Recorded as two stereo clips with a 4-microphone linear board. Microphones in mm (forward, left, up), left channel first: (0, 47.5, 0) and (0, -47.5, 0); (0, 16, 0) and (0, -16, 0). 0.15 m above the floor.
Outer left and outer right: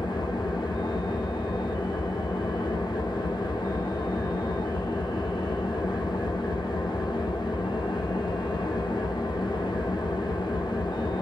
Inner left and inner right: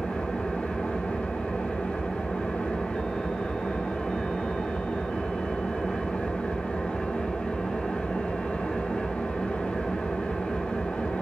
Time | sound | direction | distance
0.0 | an engine running | 50° left (ahead or behind) | 1.3 m